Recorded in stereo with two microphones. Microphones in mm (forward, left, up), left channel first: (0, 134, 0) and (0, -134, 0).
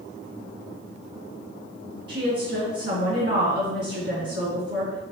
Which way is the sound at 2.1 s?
40° right (ahead or behind).